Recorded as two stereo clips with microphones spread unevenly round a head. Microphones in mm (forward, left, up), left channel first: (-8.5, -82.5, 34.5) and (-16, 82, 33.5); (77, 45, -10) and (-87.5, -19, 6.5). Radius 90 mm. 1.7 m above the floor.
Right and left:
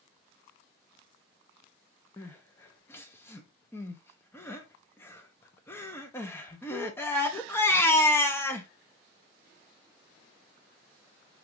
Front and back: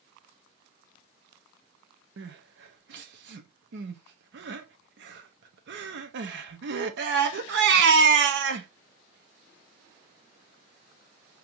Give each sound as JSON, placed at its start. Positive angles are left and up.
{"t": 2.2, "sound": "crying", "azimuth_deg": -165, "distance_m": 0.7}